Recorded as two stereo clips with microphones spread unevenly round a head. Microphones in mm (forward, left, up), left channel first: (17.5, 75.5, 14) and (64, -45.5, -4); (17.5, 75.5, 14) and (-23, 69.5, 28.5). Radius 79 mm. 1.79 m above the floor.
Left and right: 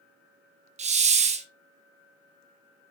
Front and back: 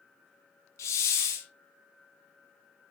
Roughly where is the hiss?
Ahead right.